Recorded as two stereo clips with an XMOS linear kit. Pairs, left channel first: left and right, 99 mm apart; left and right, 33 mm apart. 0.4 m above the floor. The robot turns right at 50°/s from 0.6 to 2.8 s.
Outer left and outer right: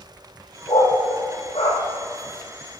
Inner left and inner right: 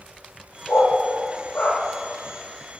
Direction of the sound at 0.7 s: 55° left (ahead or behind).